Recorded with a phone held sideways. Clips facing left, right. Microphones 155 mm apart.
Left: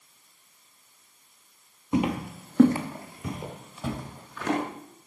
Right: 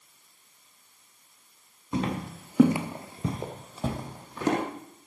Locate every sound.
1.9 s footsteps: 15° left (ahead or behind), 1.2 m; by 4.6 s 35° right (ahead or behind), 2.5 m